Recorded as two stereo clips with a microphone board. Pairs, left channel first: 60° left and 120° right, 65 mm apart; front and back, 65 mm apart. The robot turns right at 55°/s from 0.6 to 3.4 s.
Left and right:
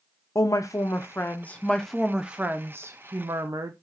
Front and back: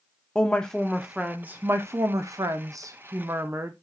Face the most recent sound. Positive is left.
turn(degrees=-130)